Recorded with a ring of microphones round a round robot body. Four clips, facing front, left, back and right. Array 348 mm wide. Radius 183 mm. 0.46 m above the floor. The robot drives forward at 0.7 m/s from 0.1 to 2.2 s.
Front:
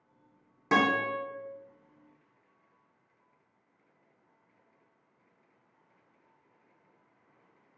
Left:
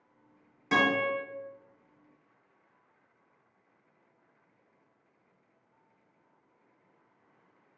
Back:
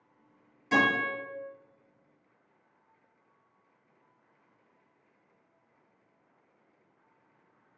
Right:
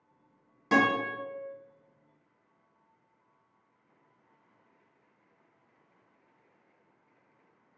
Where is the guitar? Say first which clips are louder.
Right 1 dB, front 1 dB; 15° right, 1.5 m; by 1.2 s 20° right, 1.2 m.